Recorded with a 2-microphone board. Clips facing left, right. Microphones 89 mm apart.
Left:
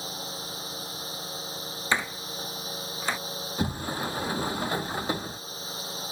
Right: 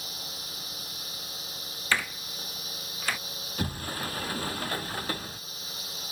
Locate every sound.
0.0 s a drone: 30° left (ahead or behind)
1.9 s a door slam: 20° left (ahead or behind)
3.6 s a sliding door: 20° left (ahead or behind)